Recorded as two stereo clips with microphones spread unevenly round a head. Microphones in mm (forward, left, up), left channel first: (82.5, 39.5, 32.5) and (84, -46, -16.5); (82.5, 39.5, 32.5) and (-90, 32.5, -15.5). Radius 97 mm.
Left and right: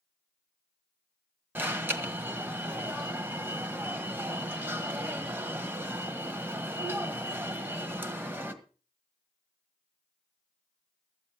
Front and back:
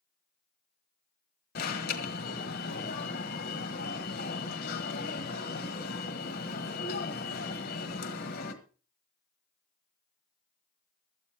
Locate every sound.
1.6 s an alarm: 45° right, 1.7 m